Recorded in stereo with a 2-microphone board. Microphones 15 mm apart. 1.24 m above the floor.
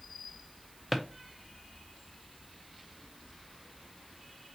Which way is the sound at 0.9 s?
5° right (ahead or behind).